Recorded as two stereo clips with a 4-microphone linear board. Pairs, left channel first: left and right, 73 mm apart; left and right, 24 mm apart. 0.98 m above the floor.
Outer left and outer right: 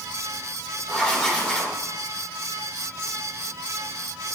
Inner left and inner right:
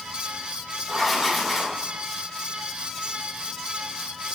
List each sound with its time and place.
0.9 s writing: 10° left (ahead or behind), 3 m